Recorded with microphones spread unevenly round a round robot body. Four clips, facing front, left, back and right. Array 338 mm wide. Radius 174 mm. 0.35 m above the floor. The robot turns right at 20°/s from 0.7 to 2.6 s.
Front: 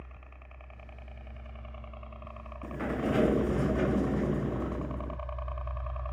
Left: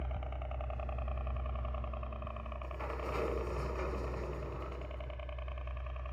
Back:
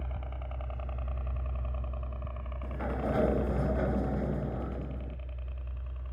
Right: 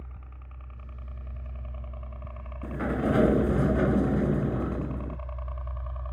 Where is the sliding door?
70° right.